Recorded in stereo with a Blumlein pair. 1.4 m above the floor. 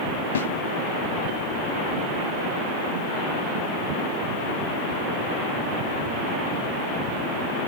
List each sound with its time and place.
0.3 s a snare drum: 65° left, 0.6 m